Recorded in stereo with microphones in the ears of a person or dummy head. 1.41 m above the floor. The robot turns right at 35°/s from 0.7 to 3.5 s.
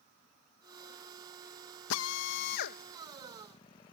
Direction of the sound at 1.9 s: 80° left.